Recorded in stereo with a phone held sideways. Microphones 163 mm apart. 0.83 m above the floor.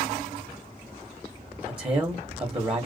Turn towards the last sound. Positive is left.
turn(degrees=-35)  # may be behind; listen again after turning